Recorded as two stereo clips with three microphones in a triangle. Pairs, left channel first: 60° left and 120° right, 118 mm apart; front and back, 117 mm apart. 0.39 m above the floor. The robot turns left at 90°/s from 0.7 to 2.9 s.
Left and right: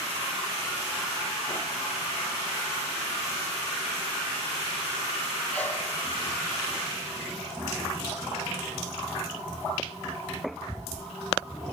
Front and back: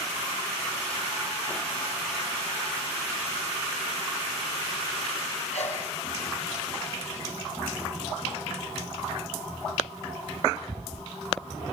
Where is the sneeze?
20° right, 8.5 m.